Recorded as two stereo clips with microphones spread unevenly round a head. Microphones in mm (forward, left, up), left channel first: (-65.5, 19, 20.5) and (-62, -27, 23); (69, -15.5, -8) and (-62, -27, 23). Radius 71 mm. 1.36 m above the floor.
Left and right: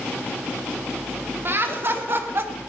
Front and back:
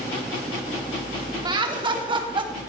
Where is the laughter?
120° right, 3 m.